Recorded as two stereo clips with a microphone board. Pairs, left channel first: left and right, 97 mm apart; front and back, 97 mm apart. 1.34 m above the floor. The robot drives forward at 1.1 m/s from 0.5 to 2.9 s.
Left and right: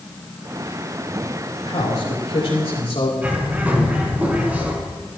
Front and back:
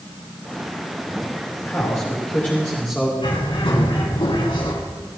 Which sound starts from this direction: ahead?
A bird, at 3.2 s.